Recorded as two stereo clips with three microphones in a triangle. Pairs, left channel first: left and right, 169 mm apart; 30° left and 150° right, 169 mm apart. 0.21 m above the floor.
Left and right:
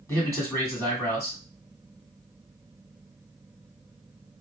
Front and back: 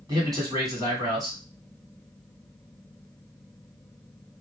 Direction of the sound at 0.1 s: 155° left.